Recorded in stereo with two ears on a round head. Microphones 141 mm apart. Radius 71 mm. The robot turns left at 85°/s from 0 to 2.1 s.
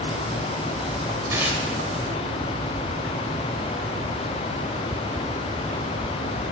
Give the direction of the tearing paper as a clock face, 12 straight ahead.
5 o'clock.